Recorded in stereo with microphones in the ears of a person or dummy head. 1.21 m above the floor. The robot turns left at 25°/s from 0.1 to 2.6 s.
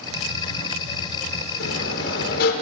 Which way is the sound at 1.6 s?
80° left.